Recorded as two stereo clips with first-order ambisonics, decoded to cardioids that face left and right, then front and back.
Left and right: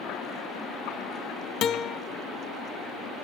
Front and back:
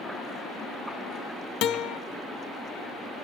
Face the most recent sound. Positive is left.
turn(degrees=40)